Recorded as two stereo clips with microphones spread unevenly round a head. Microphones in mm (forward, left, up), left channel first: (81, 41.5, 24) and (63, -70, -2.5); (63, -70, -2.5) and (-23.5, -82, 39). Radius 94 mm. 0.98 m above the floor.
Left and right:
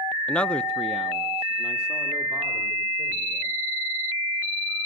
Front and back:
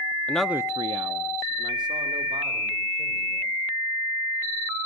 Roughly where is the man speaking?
Ahead.